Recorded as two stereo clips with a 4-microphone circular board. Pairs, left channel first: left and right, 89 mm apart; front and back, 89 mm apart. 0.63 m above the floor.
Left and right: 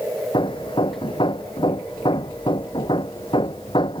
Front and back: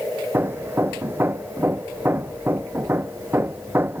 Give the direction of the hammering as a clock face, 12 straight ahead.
8 o'clock.